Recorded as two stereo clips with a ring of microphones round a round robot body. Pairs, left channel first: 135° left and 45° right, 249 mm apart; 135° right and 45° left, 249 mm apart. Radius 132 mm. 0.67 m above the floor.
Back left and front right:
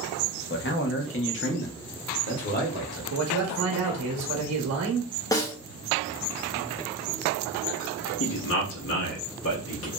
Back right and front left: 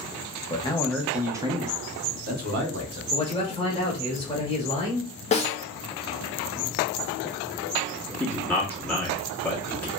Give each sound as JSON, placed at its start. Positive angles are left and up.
{"t": 0.5, "sound": "a man speaking", "azimuth_deg": 160, "distance_m": 0.8}
{"t": 3.1, "sound": "a man speaking", "azimuth_deg": -60, "distance_m": 0.9}
{"t": 5.3, "sound": "a snare drum", "azimuth_deg": -165, "distance_m": 0.8}
{"t": 8.2, "sound": "a man speaking", "azimuth_deg": 140, "distance_m": 1.3}